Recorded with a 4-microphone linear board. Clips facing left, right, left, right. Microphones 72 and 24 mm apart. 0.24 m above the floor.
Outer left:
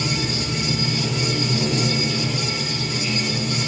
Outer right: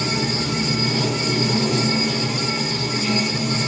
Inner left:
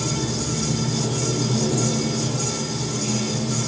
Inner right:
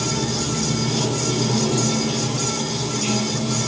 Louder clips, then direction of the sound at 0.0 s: Outer right 2 dB, inner right 2 dB; 70° right (ahead or behind).